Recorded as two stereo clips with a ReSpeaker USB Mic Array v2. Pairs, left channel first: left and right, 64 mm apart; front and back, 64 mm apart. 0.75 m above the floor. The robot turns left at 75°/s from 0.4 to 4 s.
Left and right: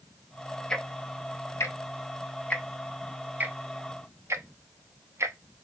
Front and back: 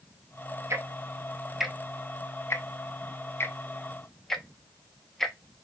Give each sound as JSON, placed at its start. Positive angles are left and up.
{"t": 0.7, "sound": "ticking", "azimuth_deg": 165, "distance_m": 0.5}